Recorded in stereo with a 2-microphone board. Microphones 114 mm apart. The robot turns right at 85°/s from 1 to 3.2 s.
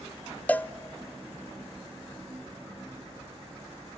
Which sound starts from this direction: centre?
A cowbell, at 0.5 s.